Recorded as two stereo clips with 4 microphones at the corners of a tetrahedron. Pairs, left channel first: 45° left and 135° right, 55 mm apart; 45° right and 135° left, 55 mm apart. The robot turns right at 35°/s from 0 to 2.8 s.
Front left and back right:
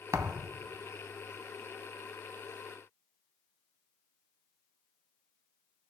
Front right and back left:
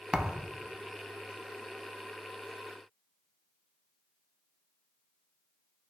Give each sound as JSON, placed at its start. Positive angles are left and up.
{"t": 0.1, "sound": "a thud", "azimuth_deg": -155, "distance_m": 0.6}